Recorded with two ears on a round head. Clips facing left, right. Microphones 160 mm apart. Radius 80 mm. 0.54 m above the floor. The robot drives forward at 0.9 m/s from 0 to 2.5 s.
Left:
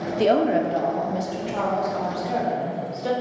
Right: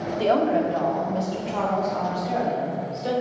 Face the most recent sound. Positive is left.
turn(degrees=5)  # may be behind; listen again after turning